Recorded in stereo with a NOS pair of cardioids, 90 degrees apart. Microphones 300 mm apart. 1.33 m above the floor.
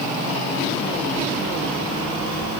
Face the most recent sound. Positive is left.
No sound to turn to.